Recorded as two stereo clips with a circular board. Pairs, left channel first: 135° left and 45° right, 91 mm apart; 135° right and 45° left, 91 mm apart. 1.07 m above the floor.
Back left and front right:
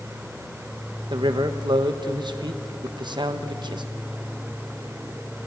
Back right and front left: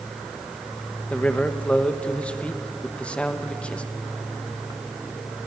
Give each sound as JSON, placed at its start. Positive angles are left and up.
{"t": 1.1, "sound": "a man speaking", "azimuth_deg": -60, "distance_m": 1.3}